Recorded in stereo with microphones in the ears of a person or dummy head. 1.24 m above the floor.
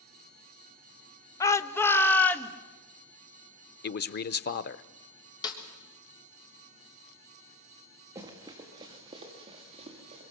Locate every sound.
1.4 s a shout: 15° left (ahead or behind), 1.1 m; by 2.5 s 10° left (ahead or behind), 2 m
3.8 s a man speaking: 50° left (ahead or behind), 0.7 m
5.4 s a snare drum: 20° left (ahead or behind), 3.5 m
8.2 s running footsteps: 20° right (ahead or behind), 4 m; by 10.2 s 35° right (ahead or behind), 7 m